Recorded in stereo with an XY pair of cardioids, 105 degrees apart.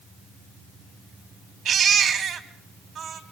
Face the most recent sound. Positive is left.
turn(degrees=-60)